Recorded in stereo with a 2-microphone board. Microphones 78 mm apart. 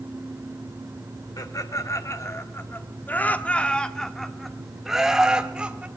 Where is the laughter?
50° left (ahead or behind), 1.7 m; by 5.9 s 15° right (ahead or behind), 2 m.